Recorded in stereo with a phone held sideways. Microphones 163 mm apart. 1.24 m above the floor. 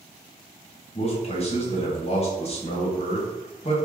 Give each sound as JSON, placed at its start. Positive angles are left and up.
{"t": 0.9, "sound": "a man speaking", "side_deg": 40, "distance_m": 1.0}